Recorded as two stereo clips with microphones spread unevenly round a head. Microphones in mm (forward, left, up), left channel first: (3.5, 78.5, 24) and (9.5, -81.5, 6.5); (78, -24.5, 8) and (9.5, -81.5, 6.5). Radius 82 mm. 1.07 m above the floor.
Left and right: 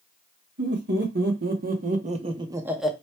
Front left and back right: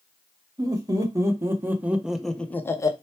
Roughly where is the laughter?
Right.